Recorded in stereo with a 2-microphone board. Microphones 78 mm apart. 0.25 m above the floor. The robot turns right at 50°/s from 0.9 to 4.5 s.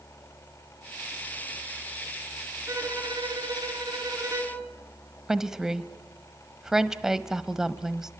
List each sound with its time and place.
2.7 s a violin: 135° right, 4 m; by 4.6 s 40° right, 4 m
5.3 s a woman speaking: 5° right (ahead or behind), 1.0 m